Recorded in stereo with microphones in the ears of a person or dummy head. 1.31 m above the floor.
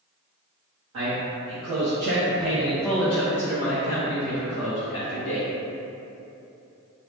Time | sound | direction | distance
0.9 | a man speaking | 75° right (ahead or behind) | 1.3 m